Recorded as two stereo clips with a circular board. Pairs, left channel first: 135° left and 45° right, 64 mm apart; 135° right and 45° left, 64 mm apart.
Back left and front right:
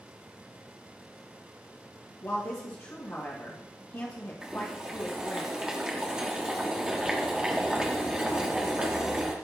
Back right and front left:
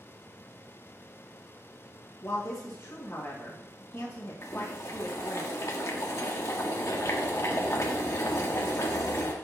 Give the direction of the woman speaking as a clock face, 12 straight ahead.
6 o'clock.